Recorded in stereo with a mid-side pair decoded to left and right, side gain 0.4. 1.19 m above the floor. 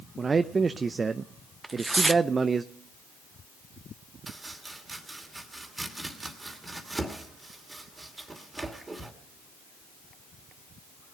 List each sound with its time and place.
0.2 s a man speaking: 35° right, 0.6 m
1.6 s tearing paper: 20° right, 0.6 m
4.3 s chopping: 25° right, 2.5 m